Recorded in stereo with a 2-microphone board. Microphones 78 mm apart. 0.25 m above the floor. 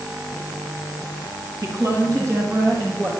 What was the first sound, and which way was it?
A woman speaking, 40° right (ahead or behind).